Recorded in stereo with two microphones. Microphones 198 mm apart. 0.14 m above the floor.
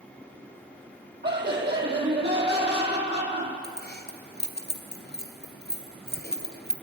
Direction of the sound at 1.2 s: 60° right (ahead or behind).